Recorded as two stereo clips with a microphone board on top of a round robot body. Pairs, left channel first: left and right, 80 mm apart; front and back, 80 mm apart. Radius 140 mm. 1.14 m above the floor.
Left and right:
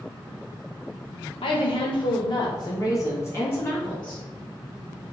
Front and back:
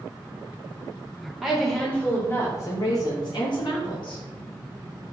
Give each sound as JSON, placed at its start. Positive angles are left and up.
{"t": 1.4, "sound": "a woman speaking", "azimuth_deg": 95, "distance_m": 1.2}